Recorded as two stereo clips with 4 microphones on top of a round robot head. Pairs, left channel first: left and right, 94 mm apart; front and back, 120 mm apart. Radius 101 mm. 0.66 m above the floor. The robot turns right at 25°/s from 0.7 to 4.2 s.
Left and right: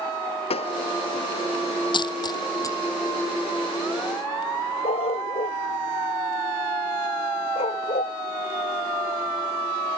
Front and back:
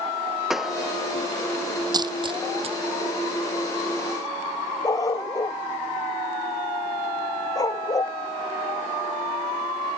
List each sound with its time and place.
0.5 s a pop: 90° left; by 0.8 s 95° left
1.9 s a dropped coin: 125° left; by 2.8 s 145° left
4.8 s a dog barking: 60° left